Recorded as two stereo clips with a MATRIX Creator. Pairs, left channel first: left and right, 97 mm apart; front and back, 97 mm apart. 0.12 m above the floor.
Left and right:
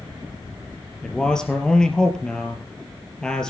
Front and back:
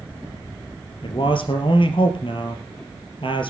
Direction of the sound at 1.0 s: 5° left.